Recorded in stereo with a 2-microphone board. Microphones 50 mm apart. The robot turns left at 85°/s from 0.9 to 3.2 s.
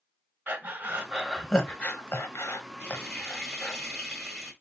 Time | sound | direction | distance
0.5 | breathing | 40° right (ahead or behind) | 0.9 m
2.8 | frying | 25° left | 1.5 m